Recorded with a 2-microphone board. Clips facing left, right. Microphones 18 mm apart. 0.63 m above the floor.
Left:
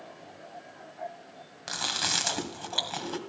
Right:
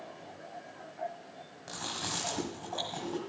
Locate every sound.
1.7 s chewing: 70° left (ahead or behind), 1.7 m